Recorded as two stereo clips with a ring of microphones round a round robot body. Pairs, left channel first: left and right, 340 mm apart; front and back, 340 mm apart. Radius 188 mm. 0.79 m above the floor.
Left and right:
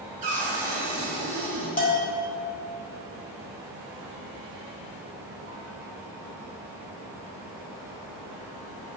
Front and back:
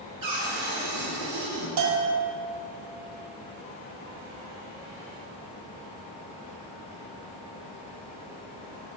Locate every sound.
0.2 s a cupboard door: 160° right, 3.5 m
1.8 s a bell: 155° left, 1.8 m